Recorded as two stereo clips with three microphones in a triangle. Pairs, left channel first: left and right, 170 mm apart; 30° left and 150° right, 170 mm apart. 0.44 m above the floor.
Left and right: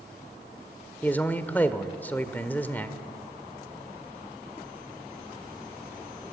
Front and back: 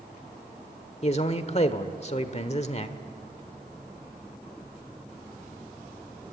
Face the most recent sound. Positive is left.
turn(degrees=15)